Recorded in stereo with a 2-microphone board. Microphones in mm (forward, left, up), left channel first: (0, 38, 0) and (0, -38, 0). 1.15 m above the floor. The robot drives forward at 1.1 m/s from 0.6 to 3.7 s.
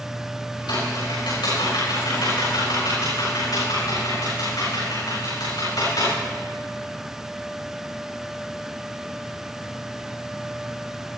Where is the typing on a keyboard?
80° left, 6.5 m; by 6.2 s 60° left (ahead or behind), 7.5 m.